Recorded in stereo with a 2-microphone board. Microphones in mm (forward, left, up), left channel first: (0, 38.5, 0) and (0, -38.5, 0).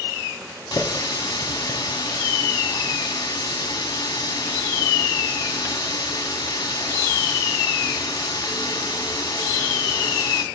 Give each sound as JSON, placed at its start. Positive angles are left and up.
{"t": 0.7, "sound": "a running tap", "side_deg": 50, "distance_m": 0.9}